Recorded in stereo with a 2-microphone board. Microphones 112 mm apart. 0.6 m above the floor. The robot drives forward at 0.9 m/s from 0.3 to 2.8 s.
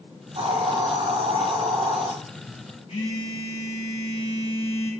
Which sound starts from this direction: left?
A phone buzzing, at 2.9 s.